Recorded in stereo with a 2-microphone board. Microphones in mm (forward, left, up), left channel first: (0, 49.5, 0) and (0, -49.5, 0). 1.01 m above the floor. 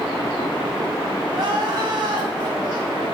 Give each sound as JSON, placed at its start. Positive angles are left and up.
{"t": 1.3, "sound": "crying", "side_deg": -55, "distance_m": 1.5}